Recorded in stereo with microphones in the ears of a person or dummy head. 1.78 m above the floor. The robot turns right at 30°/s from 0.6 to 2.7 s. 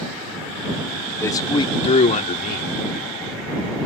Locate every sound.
1.2 s a man speaking: 15° left; by 2.7 s 60° left